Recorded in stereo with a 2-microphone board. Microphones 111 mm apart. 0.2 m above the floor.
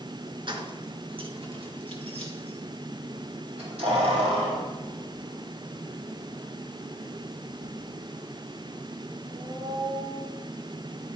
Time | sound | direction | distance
0.5 | keys jangling | 45° right (ahead or behind) | 1.8 m